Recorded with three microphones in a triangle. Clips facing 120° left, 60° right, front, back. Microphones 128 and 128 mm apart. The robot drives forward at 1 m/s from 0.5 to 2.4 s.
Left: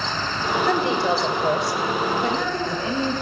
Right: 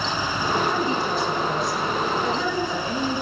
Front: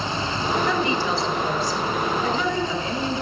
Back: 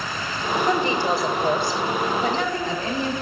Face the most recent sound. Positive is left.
turn(degrees=145)